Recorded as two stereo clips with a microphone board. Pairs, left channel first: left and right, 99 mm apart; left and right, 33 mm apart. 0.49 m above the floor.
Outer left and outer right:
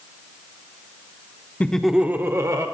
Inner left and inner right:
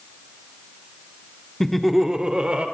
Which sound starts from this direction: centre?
Laughter, at 1.6 s.